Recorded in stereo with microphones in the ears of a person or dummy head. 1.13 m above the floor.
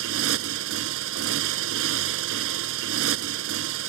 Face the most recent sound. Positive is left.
turn(degrees=-75)  # may be behind; listen again after turning